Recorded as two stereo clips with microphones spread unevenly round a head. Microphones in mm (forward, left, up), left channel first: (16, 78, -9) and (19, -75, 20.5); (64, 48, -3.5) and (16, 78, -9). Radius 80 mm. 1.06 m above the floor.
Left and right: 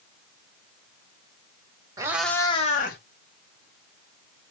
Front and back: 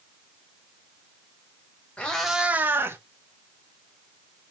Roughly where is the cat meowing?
Right.